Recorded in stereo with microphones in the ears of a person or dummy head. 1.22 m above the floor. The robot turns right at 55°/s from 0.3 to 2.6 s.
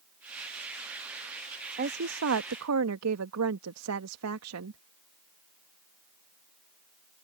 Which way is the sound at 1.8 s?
135° right.